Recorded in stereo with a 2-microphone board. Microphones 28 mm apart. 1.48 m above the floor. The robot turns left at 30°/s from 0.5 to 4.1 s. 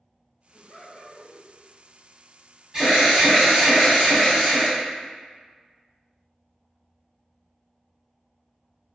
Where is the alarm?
20° right, 1.5 m; by 4.7 s 60° right, 1.5 m.